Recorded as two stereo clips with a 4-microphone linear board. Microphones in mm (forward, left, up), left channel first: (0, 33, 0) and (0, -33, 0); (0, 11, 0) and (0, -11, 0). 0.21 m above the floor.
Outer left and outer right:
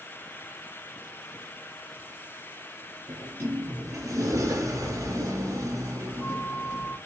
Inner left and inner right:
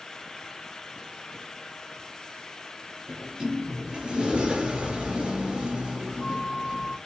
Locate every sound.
3.1 s a sliding door: 55° right (ahead or behind), 4 m